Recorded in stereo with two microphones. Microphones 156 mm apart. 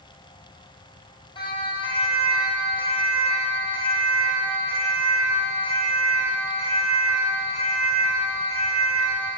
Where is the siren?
30° left (ahead or behind), 4.5 m; by 9.3 s 40° left (ahead or behind), 13 m.